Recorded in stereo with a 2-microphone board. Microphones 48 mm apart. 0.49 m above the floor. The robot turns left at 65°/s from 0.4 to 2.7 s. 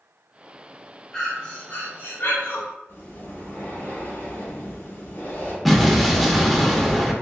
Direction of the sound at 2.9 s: 60° left (ahead or behind).